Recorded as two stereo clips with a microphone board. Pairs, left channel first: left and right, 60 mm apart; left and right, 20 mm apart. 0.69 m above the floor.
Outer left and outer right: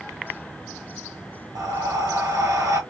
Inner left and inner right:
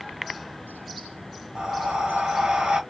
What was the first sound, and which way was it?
Breathing, 65° right (ahead or behind).